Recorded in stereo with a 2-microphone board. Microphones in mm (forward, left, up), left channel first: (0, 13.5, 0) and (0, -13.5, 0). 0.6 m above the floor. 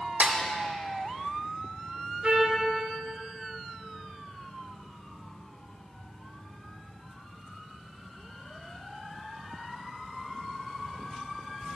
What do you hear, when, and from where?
0.2 s a snare drum: 65° right (ahead or behind), 0.9 m
2.2 s a trumpet: 45° right (ahead or behind), 1.8 m